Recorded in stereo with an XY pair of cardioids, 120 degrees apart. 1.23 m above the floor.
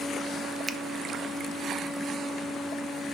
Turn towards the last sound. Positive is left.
turn(degrees=-10)